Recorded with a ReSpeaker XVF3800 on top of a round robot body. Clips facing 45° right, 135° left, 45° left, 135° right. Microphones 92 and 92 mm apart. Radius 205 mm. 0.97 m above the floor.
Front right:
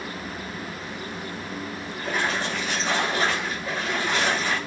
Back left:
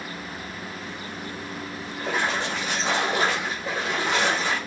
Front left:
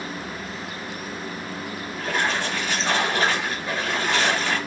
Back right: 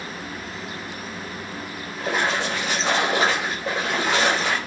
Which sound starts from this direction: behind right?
A splash, at 2.0 s.